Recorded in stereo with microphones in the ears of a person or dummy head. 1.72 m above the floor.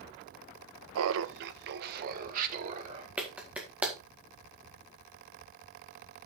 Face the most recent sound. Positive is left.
turn(degrees=-5)  # may be behind; listen again after turning